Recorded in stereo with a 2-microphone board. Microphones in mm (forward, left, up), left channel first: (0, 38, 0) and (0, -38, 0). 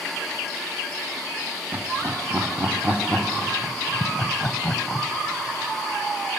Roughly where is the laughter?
Right.